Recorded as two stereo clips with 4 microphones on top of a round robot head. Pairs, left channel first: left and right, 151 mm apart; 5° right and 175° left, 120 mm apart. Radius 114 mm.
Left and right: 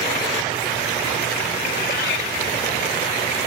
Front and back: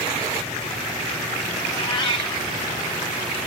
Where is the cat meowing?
45° left, 1.5 m.